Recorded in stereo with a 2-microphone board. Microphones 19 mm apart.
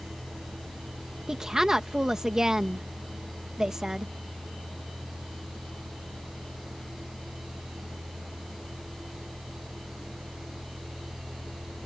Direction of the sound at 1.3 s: 35° right (ahead or behind).